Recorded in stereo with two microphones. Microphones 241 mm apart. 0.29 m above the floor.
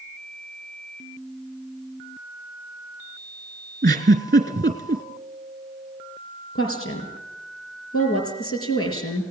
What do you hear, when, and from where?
3.8 s a giggle: 40° right (ahead or behind), 2.5 m
6.5 s a woman speaking: 70° left (ahead or behind), 4.5 m